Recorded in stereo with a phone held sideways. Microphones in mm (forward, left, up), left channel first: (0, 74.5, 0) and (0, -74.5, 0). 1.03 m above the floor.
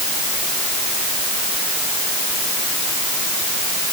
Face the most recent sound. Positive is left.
No sound to turn to.